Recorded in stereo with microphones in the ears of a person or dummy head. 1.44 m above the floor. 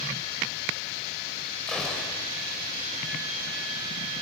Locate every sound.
1.7 s a gunshot: centre (ahead or behind), 5.5 m